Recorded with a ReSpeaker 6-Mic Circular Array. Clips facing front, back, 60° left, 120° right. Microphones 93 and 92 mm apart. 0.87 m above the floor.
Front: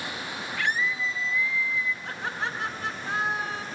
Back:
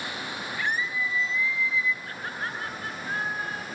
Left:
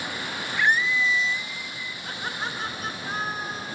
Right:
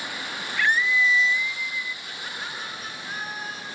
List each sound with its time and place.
0.6 s a scream: 20° right, 1.5 m; by 1.9 s 50° left, 1.4 m
2.0 s laughter: 5° left, 8 m